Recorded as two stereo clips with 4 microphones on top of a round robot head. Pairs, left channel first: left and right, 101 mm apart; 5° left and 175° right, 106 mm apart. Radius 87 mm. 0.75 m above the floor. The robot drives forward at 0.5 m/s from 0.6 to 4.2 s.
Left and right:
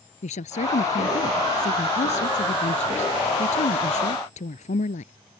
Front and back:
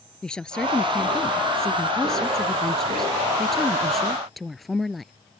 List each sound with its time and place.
0.2 s a woman speaking: 90° left; by 5.1 s 95° left